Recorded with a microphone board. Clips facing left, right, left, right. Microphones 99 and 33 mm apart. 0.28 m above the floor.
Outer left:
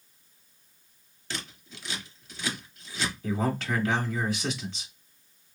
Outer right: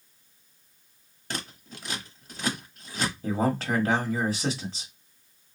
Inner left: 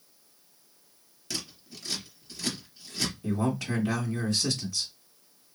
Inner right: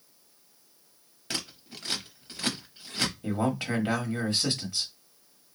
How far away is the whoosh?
No whoosh in this recording.